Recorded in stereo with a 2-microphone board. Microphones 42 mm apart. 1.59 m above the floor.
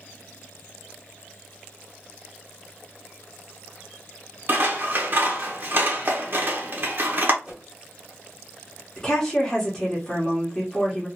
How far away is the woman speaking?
About 1.0 m.